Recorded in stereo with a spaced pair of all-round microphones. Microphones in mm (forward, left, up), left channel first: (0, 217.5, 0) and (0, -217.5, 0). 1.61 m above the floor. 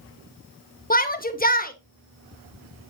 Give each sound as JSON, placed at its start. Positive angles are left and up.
{"t": 0.9, "sound": "a shout", "side_deg": 20, "distance_m": 1.7}